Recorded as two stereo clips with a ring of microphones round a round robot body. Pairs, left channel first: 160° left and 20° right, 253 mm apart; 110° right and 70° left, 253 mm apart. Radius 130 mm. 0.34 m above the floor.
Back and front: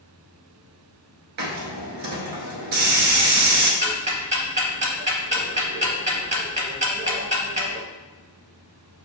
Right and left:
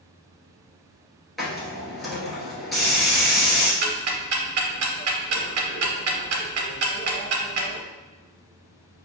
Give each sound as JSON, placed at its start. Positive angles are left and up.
{"t": 1.4, "sound": "a hiss", "azimuth_deg": -20, "distance_m": 1.0}
{"t": 3.8, "sound": "ticking", "azimuth_deg": 40, "distance_m": 0.7}